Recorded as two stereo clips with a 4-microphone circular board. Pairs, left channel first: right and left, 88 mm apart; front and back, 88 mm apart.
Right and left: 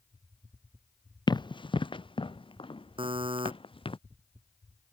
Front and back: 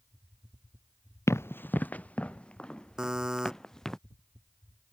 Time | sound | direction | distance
1.3 | running footsteps | 60° right | ?
3.0 | a buzzer | 95° left | ?